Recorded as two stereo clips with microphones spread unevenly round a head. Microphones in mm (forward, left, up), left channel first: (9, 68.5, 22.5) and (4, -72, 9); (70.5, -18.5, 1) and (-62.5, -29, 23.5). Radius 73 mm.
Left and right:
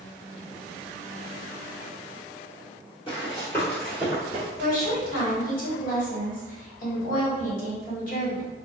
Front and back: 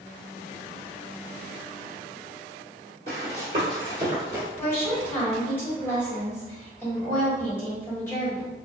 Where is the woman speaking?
70° left, 1.3 m.